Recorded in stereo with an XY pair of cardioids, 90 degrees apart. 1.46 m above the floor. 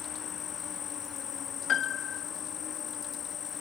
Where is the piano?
65° left.